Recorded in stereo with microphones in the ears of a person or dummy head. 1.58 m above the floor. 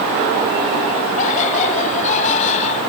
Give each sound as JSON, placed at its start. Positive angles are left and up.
{"t": 1.2, "sound": "laughter", "side_deg": 45}